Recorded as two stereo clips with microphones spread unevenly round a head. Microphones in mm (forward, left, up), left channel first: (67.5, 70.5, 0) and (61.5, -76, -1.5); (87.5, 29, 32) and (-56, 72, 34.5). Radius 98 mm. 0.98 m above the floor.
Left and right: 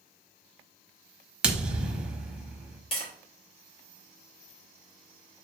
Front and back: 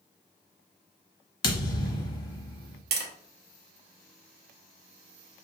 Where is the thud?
15° right, 0.8 m.